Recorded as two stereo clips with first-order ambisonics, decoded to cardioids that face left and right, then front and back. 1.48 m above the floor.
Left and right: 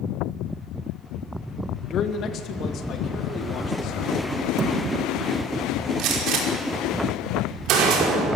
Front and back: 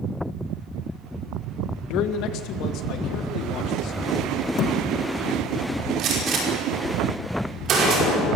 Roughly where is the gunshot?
Behind right.